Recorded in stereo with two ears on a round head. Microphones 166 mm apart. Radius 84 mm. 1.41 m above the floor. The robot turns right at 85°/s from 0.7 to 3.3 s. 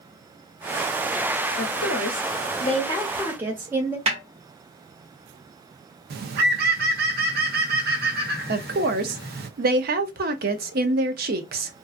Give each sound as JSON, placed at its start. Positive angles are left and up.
{"t": 1.6, "sound": "a woman speaking", "azimuth_deg": 45, "distance_m": 0.7}
{"t": 4.1, "sound": "a snare drum", "side_deg": -35, "distance_m": 1.4}
{"t": 6.1, "sound": "a bird", "side_deg": -55, "distance_m": 0.7}
{"t": 8.5, "sound": "a woman speaking", "side_deg": -50, "distance_m": 0.5}